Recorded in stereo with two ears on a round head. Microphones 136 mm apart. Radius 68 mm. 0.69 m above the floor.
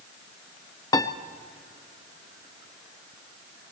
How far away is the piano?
About 0.8 m.